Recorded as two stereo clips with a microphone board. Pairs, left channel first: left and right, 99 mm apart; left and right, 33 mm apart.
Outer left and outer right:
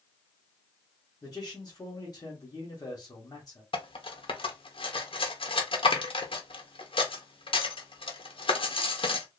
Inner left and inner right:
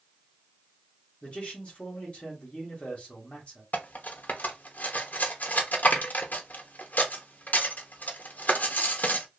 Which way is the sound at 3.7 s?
65° left (ahead or behind).